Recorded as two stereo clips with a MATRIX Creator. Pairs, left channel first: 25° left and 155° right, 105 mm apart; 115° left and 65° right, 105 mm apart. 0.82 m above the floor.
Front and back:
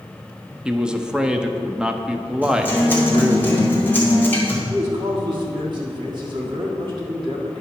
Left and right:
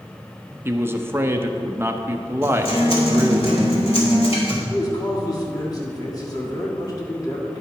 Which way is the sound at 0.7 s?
85° right.